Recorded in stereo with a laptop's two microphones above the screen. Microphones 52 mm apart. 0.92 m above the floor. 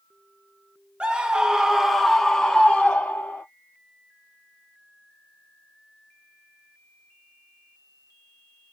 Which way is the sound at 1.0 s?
20° right (ahead or behind).